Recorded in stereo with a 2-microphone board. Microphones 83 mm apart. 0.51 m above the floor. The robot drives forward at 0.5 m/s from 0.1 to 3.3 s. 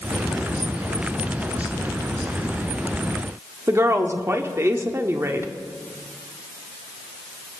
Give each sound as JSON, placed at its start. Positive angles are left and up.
{"t": 3.7, "sound": "a woman speaking", "side_deg": -30, "distance_m": 1.0}